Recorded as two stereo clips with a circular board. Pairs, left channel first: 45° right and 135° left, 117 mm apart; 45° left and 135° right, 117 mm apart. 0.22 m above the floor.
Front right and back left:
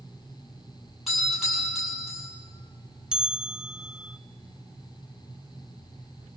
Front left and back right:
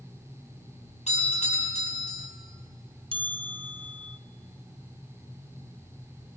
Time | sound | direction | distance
1.1 | a doorbell | 45° left | 7 m
3.1 | a bell | 145° right | 0.7 m